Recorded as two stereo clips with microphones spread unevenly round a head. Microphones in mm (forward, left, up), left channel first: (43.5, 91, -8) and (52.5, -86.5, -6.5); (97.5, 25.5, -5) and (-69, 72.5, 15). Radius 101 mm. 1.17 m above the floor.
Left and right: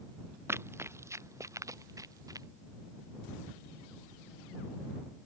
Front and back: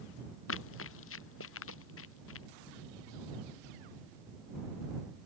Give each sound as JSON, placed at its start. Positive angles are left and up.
{"t": 0.5, "sound": "running footsteps", "azimuth_deg": -10}